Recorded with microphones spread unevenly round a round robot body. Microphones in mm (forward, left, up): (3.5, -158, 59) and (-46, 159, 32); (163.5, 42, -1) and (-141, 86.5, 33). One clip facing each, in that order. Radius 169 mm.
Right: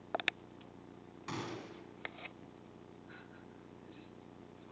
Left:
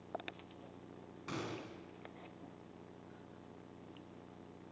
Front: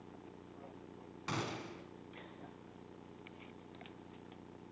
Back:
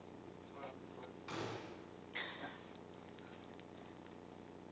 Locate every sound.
1.3 s a gunshot: straight ahead, 3.5 m